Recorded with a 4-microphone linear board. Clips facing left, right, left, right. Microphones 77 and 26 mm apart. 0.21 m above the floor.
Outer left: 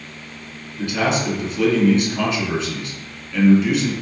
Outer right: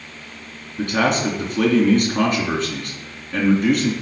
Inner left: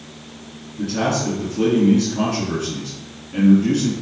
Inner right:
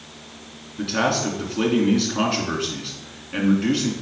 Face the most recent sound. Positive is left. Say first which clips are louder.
# outer right 2 dB, even
turn(degrees=-50)  # may be behind; listen again after turning